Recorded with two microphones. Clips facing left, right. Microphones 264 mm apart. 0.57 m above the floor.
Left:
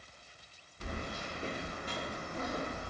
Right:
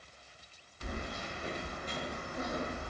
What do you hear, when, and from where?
0.8 s keys jangling: 45° left (ahead or behind), 1.1 m; by 2.9 s 30° right (ahead or behind), 0.8 m